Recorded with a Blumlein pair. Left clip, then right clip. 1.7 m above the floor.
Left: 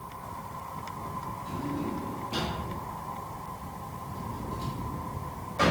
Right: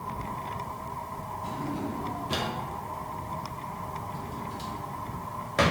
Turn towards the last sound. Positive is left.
turn(degrees=-40)